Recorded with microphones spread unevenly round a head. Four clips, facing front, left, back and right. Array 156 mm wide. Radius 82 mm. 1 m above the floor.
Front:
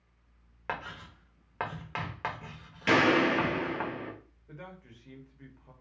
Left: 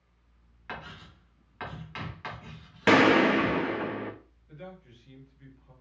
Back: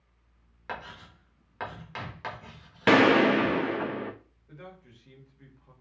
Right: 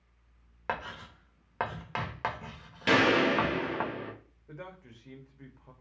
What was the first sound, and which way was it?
Writing, 70° right.